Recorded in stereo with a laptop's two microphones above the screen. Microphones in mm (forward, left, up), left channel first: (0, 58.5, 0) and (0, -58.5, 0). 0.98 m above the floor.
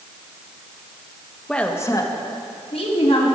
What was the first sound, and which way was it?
A woman speaking, 5° left (ahead or behind).